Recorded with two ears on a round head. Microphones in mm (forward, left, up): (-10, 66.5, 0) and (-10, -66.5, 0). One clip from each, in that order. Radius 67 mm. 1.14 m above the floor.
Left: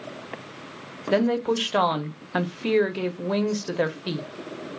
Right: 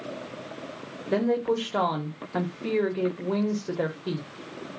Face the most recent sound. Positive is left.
turn(degrees=55)  # may be behind; listen again after turning